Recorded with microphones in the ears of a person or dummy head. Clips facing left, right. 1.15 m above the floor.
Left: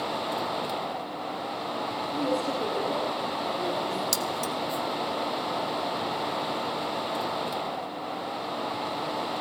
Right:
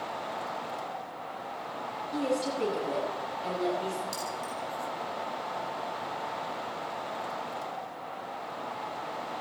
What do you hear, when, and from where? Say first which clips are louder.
2.1 s a woman speaking: left 1 dB; 30° right (ahead or behind), 9.5 m
4.1 s keys jangling: left 6 dB; 85° left, 1.1 m